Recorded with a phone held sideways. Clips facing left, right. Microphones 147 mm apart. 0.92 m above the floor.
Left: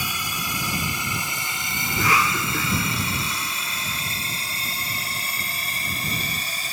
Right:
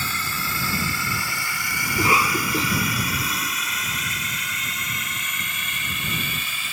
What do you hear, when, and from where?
0.0 s a drone: 15° left (ahead or behind); by 6.7 s 40° left (ahead or behind)
1.9 s a cough: 25° right (ahead or behind)